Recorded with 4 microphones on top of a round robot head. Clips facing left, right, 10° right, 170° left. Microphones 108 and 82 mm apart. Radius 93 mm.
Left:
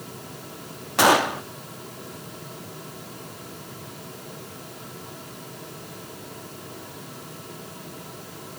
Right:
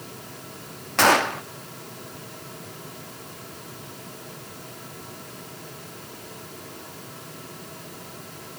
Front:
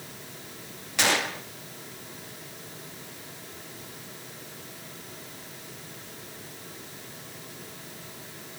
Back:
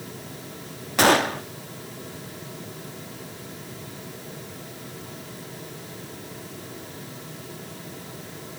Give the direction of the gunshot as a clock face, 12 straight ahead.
7 o'clock.